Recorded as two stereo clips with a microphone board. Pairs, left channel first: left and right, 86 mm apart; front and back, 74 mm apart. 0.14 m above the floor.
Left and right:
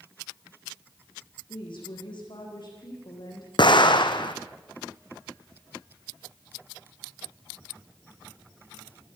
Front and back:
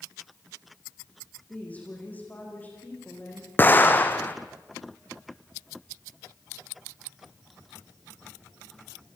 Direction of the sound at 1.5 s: 70° left.